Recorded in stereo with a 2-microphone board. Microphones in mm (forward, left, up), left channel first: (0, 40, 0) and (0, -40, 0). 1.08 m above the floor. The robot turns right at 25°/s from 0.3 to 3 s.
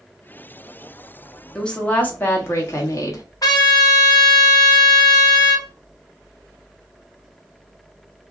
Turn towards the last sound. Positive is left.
turn(degrees=50)  # may be behind; listen again after turning